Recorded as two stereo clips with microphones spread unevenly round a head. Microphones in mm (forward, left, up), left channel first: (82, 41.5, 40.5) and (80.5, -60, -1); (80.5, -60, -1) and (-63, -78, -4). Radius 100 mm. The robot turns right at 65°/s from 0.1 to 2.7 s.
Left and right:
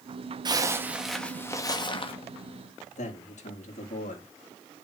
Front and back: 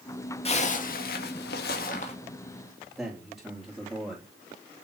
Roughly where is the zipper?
Ahead right.